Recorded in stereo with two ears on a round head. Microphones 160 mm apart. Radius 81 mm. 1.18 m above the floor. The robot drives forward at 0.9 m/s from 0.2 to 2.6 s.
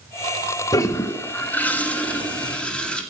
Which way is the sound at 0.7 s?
20° left (ahead or behind).